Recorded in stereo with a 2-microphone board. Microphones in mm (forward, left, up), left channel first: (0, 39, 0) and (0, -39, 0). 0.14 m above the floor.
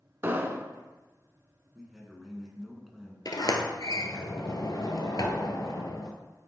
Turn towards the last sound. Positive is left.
turn(degrees=55)  # may be behind; listen again after turning